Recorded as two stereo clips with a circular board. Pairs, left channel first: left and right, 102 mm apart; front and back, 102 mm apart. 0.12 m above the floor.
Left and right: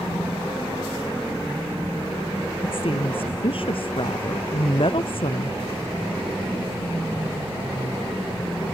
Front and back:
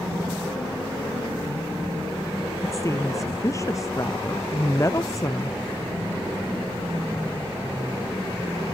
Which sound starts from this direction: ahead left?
A woman speaking, at 2.6 s.